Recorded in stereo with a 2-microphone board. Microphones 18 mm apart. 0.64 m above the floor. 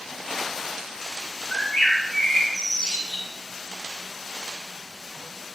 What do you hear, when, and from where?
1.5 s a bird: 65° left (ahead or behind), 4 m